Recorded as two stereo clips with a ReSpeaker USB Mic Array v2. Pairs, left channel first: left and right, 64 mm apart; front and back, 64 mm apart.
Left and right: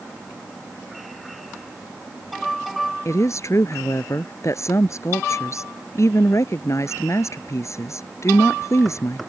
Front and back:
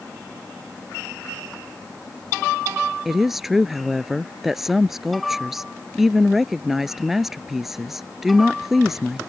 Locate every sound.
3.0 s a woman speaking: 95° left